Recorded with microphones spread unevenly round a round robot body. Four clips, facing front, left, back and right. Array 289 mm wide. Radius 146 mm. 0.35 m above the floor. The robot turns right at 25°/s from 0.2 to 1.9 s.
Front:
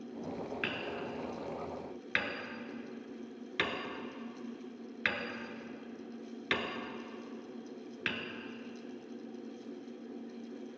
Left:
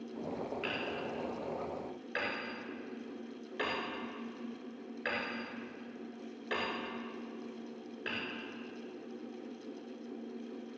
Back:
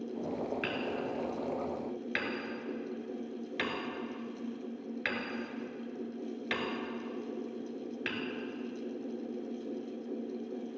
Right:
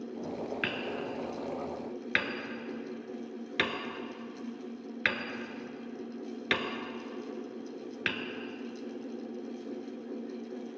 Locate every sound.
0.6 s hammering: 105° right, 1.6 m; by 8.2 s 75° right, 1.6 m